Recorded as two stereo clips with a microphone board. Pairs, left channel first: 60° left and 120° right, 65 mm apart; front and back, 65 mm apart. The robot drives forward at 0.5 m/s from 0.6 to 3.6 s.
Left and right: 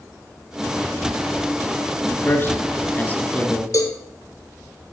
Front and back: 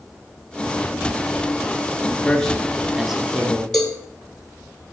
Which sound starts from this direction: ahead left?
A man speaking, at 2.1 s.